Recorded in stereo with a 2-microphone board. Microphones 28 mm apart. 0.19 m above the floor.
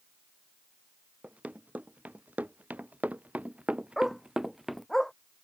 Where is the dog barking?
15° left (ahead or behind).